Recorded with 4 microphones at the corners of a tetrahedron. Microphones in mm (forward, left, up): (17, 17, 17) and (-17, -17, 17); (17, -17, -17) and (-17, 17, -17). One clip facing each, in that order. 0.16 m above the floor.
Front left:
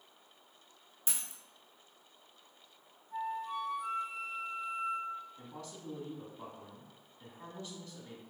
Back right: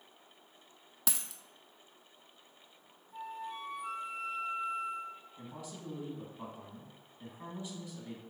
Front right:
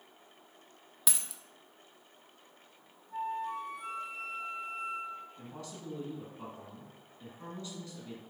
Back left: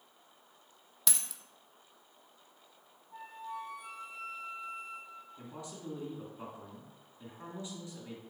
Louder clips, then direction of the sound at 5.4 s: Back right 1 dB, even; 170° left.